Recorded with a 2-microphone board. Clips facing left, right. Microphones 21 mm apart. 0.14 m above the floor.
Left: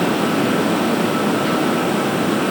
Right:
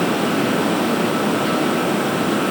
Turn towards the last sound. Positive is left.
No sound to turn to.